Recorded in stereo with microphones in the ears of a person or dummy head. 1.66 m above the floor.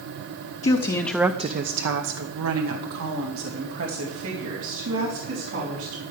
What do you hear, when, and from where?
0.6 s a woman speaking: 35° left (ahead or behind), 0.9 m; by 6.0 s 75° right (ahead or behind), 5 m